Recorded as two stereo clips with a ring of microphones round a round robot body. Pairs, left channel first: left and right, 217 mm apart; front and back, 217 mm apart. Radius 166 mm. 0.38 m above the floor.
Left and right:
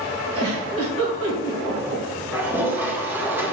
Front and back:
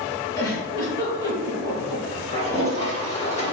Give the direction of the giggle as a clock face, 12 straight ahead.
2 o'clock.